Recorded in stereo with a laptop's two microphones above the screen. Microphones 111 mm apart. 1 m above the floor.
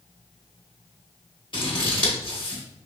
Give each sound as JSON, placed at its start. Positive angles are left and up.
{"t": 1.5, "sound": "scissors", "side_deg": 50, "distance_m": 1.0}